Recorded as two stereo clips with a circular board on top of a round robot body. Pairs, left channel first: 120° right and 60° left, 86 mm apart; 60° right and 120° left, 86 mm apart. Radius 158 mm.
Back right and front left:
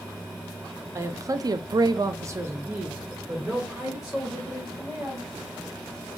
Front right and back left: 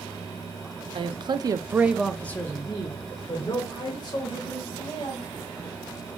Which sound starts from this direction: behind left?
A man speaking, at 0.9 s.